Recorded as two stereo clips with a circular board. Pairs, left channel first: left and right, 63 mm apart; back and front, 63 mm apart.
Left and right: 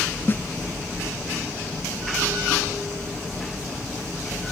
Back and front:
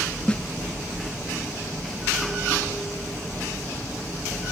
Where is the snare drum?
115° left, 0.5 m.